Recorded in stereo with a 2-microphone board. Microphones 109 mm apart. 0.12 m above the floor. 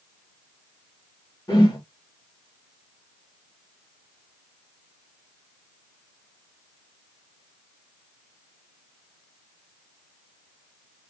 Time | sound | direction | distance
1.5 | a whoosh | 35° left (ahead or behind) | 1.6 m